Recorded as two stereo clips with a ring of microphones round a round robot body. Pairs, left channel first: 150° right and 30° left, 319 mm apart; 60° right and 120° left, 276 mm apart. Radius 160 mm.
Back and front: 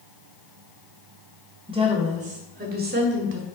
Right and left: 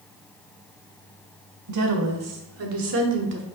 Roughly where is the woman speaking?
Left.